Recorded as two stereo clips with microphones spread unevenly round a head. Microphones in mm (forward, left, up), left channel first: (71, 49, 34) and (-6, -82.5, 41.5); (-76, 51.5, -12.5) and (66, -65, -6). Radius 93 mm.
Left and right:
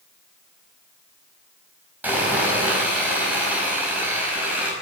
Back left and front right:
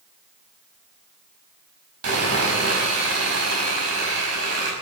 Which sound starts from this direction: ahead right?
Sawing, at 2.0 s.